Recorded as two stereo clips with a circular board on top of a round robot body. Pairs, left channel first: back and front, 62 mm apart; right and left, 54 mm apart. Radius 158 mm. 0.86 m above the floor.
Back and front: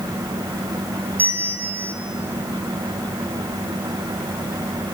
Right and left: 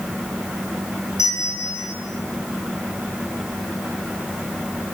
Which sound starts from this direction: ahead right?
A bell, at 1.2 s.